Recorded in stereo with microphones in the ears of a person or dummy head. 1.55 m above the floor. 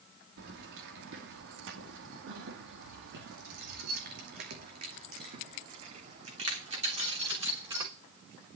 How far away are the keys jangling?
About 2.5 m.